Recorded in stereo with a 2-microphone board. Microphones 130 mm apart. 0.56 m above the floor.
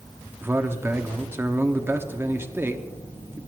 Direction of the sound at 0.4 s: 20° right (ahead or behind).